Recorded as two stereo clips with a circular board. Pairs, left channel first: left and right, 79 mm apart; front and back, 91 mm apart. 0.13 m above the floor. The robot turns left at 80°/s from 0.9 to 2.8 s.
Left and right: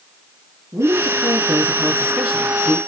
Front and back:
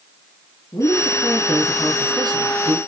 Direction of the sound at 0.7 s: 45° right.